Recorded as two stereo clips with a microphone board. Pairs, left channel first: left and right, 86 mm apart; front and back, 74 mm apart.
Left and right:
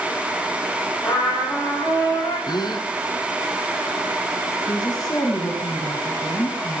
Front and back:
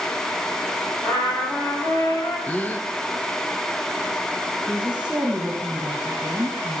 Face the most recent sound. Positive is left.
turn(degrees=110)